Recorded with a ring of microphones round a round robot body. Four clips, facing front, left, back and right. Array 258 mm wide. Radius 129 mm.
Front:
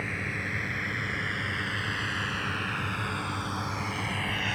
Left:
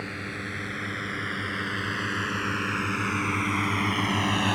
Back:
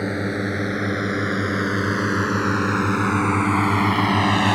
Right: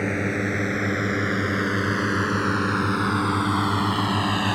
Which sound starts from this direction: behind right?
A drone, at 0.0 s.